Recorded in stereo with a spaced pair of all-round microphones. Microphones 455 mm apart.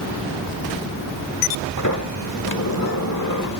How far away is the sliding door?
About 1.1 m.